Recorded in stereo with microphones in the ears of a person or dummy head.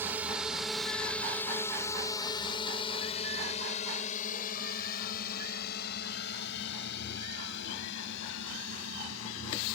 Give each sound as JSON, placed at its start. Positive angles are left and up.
{"t": 0.0, "sound": "a drone", "side_deg": -5}